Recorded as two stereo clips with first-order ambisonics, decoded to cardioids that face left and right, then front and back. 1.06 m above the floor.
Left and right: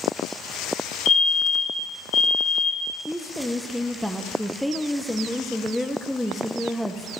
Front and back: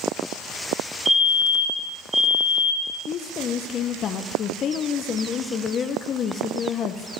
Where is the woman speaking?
5° left, 0.6 m.